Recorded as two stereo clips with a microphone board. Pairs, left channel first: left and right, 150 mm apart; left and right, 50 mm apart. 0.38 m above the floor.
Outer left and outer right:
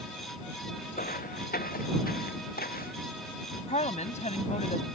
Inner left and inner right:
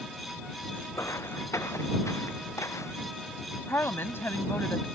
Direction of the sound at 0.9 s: 75° left (ahead or behind).